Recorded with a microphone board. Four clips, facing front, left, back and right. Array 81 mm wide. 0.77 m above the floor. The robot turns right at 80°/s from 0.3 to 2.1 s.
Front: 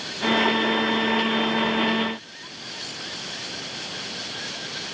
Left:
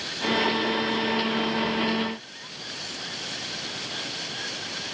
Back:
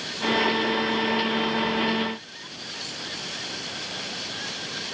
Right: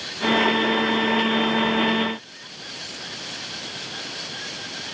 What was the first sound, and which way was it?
Only background noise.